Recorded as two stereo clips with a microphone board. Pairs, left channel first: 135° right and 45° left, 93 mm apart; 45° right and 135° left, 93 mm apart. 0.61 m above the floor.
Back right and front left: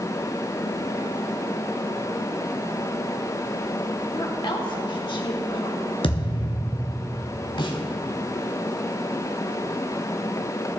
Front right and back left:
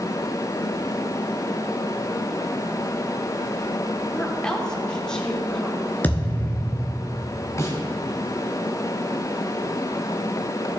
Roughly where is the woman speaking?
Behind right.